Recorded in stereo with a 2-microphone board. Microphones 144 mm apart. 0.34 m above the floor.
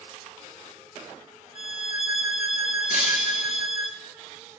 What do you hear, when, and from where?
1.6 s a violin: 50° left (ahead or behind), 0.6 m
2.9 s breaking glass: 75° left (ahead or behind), 1.7 m